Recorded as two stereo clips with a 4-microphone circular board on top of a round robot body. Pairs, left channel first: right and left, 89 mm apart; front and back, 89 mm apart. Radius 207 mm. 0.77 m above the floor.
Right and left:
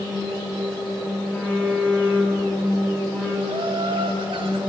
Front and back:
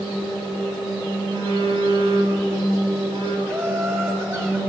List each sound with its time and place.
1.3 s a phone buzzing: 165° right, 5 m
3.5 s laughter: 120° left, 6 m